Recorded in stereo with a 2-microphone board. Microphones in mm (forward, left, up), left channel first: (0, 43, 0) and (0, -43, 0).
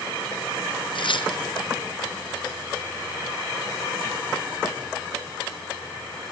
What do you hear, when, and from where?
0.9 s tearing paper: 65° left (ahead or behind), 1.6 m